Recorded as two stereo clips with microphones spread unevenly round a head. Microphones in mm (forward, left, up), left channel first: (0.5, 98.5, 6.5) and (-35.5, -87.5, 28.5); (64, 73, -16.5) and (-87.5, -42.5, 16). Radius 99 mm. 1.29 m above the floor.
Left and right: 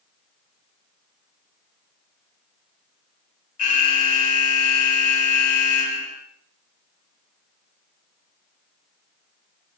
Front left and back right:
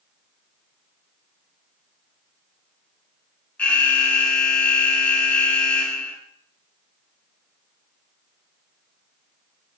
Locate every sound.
3.6 s an alarm: 115° left, 1.8 m